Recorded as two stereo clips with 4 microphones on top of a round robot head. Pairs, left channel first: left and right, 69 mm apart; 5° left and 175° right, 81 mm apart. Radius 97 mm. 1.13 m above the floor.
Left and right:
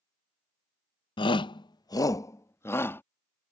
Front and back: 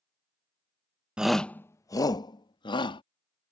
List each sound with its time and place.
1.2 s a shout: 105° left; by 3.0 s 30° left